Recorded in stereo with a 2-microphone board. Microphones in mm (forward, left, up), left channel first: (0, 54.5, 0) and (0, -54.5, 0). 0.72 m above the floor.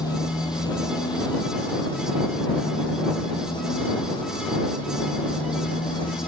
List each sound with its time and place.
0.0 s a motorcycle: 40° left (ahead or behind); by 6.3 s 50° left (ahead or behind)